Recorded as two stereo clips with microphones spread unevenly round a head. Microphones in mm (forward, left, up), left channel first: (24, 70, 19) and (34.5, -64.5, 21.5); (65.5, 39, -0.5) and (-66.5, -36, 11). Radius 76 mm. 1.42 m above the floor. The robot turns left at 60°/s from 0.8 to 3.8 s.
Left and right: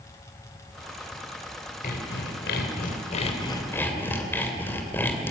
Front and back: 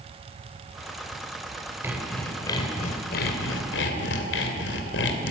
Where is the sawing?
135° left, 2.5 m; by 5.3 s 20° left, 2.5 m.